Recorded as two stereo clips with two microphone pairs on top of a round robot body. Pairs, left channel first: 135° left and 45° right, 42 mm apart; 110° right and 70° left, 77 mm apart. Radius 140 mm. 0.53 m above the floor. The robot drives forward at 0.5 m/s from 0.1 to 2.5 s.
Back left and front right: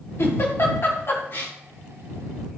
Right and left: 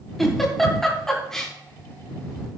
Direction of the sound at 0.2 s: 165° left.